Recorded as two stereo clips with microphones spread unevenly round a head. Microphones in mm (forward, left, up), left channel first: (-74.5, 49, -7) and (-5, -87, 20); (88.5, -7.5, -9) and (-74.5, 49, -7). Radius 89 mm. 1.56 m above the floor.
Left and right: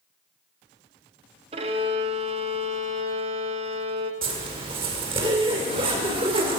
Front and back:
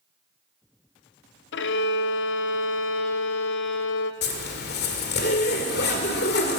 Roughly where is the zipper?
Ahead.